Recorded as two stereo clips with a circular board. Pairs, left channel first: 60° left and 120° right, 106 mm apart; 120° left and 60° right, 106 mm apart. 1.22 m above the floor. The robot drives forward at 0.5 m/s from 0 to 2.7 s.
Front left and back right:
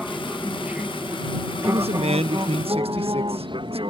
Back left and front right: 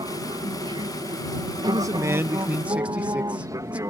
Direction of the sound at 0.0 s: 35° right.